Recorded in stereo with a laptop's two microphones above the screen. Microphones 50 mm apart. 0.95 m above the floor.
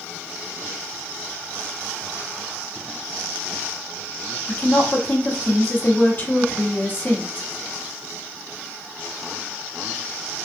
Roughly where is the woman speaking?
Left.